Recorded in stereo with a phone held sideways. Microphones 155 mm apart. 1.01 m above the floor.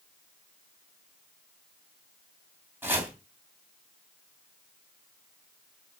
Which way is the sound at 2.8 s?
15° right (ahead or behind).